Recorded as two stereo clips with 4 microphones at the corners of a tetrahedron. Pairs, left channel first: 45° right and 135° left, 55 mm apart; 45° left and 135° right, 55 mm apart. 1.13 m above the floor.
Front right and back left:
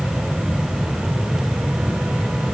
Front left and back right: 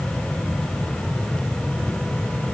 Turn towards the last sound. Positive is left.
No sound to turn to.